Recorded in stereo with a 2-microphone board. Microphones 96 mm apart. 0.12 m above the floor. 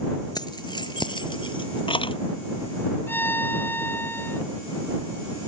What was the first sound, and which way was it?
Keys jangling, 45° left (ahead or behind).